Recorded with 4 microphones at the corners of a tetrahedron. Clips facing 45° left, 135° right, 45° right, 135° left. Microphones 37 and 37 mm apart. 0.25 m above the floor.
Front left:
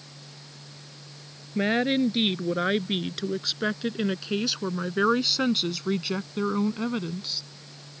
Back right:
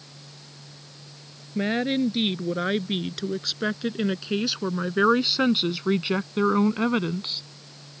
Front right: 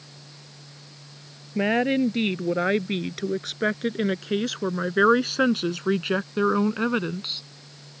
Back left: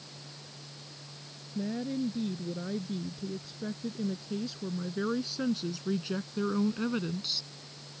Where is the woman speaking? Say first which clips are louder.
Front left 1 dB, front right 12 dB; 35° right; by 7.4 s 95° right.